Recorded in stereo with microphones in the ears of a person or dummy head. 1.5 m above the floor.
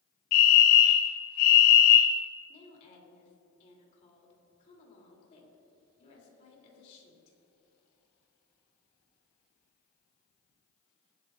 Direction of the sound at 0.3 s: 45° left (ahead or behind).